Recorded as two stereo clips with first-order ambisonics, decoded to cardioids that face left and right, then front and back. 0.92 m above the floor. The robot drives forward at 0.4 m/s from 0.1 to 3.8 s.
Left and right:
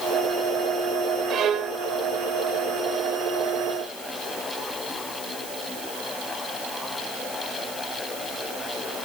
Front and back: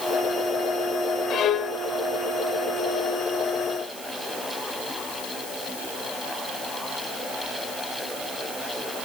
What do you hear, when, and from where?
1.3 s a violin: 40° right, 0.9 m; by 1.8 s 55° right, 0.8 m